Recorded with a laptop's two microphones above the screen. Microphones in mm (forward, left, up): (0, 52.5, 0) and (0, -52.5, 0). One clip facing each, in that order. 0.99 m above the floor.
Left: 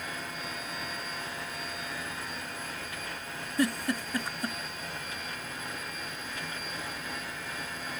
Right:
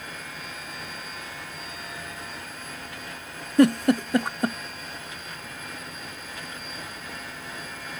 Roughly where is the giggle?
Right.